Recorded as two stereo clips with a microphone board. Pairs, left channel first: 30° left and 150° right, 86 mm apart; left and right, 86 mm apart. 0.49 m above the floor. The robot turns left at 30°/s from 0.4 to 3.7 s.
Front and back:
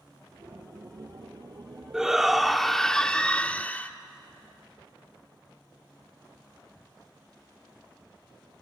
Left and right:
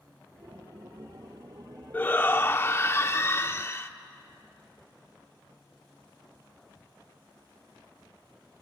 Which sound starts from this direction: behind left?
A shout, at 1.9 s.